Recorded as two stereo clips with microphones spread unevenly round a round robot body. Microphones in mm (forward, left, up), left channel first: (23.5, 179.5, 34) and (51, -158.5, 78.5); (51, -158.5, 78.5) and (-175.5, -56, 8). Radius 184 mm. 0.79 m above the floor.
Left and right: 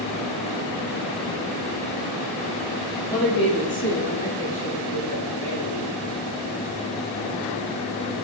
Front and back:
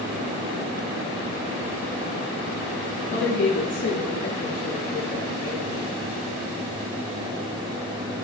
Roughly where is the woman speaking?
Ahead.